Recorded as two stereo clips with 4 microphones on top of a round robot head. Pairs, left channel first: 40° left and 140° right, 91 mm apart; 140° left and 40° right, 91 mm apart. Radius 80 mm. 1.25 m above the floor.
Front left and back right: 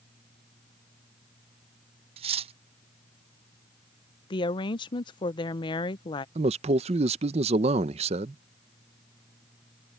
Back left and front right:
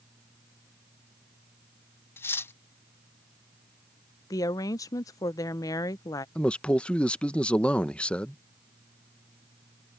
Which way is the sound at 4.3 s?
80° left.